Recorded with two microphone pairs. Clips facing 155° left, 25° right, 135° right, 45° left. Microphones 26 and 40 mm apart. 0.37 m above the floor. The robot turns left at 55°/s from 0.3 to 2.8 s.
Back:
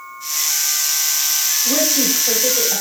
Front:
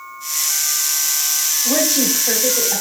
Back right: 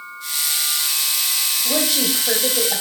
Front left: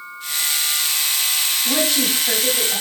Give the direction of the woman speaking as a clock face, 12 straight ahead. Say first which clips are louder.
Front 1 dB, front left 1 dB; 2 o'clock.